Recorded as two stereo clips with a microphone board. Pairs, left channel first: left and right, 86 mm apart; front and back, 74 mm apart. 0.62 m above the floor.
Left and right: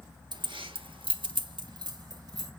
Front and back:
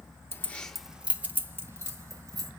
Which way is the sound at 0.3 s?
60° right.